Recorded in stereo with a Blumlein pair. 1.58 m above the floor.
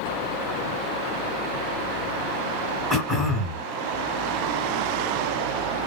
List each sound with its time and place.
2.9 s throat clearing: 10° right, 1.7 m